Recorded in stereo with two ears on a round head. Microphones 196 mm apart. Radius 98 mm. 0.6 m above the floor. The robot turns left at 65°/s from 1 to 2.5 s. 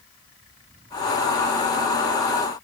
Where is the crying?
I don't hear crying.